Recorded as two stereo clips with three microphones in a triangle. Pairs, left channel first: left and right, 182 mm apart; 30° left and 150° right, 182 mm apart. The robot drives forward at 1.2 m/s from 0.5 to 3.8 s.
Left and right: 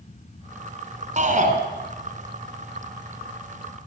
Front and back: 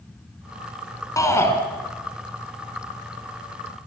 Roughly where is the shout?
Ahead right.